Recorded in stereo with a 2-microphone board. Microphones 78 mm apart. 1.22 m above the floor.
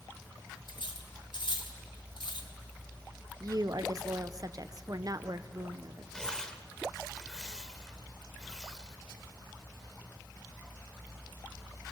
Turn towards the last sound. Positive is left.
turn(degrees=5)  # may be behind; listen again after turning